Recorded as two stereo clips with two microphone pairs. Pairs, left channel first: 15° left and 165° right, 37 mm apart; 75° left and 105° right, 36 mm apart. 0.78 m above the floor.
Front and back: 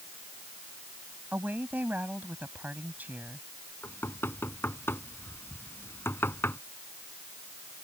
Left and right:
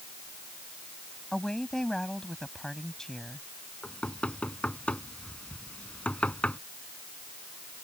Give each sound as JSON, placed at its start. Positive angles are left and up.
{"t": 1.3, "sound": "a woman speaking", "azimuth_deg": 150}
{"t": 3.8, "sound": "knocking", "azimuth_deg": 20}